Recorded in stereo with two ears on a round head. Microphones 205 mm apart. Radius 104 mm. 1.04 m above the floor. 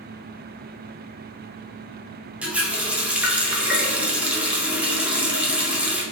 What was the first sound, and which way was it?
A running tap, 5° right (ahead or behind).